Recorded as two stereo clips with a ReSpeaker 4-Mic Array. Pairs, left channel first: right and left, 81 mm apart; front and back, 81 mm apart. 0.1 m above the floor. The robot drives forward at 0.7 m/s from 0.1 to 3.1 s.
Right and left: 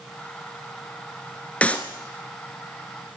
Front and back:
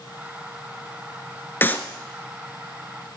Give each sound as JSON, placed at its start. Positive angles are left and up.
{"t": 1.6, "sound": "a clap", "azimuth_deg": -35, "distance_m": 1.0}